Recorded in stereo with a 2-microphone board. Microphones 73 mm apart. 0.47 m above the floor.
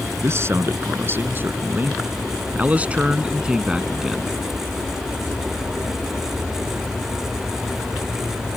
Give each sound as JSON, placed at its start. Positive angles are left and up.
{"t": 0.2, "sound": "a man speaking", "side_deg": -40}